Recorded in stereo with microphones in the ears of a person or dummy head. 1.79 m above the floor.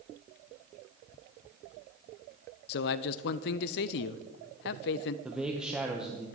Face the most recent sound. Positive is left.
turn(degrees=-5)  # may be behind; listen again after turning